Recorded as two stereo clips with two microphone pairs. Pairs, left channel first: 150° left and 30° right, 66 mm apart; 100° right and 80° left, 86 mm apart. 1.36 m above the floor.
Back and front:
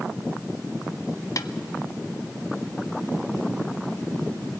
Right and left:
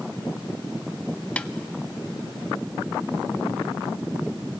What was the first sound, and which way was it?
A snare drum, 175° right.